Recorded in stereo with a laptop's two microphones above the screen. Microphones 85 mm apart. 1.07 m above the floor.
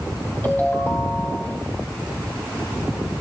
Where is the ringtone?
25° left (ahead or behind), 2.5 m.